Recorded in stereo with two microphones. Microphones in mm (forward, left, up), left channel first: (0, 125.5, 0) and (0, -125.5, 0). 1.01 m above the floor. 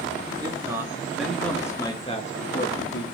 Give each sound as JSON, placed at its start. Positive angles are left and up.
{"t": 0.4, "sound": "a man speaking", "side_deg": -15, "distance_m": 2.0}